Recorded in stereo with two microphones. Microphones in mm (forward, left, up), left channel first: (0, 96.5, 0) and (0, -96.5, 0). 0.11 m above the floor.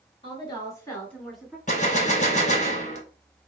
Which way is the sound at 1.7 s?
40° left (ahead or behind).